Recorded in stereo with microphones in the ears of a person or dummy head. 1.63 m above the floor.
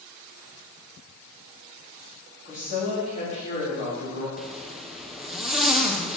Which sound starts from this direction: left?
A woman speaking, at 2.5 s.